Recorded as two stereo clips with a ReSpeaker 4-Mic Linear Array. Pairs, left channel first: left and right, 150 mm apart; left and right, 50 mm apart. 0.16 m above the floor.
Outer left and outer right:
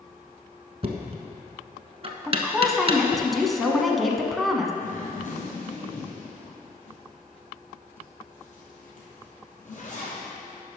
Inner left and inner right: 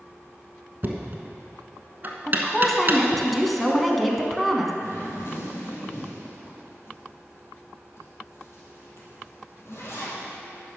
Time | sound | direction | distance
0.8 | knocking | 40° right (ahead or behind) | 1.0 m
2.3 | a woman speaking | centre (ahead or behind) | 1.0 m
4.8 | a zipper | 55° left (ahead or behind) | 2.5 m